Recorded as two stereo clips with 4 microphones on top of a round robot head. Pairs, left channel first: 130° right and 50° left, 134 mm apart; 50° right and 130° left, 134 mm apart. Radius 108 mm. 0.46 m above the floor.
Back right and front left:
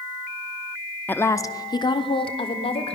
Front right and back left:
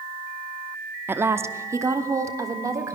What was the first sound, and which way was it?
A woman speaking, 175° left.